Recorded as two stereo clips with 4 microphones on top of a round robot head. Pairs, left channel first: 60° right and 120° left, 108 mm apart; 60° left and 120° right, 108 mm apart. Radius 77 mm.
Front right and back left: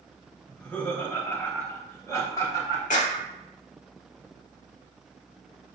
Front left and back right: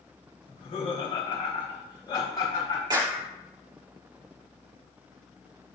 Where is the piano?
No piano in this recording.